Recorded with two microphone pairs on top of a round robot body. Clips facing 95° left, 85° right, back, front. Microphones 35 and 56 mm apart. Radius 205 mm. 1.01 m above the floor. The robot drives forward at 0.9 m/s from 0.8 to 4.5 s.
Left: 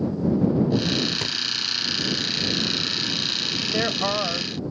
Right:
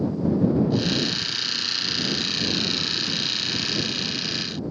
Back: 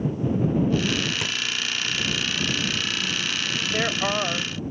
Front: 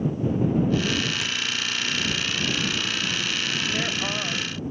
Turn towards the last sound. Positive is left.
turn(degrees=120)